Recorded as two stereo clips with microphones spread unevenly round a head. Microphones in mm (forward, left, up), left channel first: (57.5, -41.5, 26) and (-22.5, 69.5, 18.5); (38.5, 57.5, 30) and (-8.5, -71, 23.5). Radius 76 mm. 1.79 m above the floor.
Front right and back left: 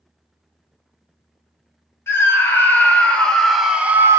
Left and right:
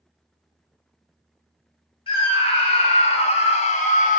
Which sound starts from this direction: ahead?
A scream, at 2.1 s.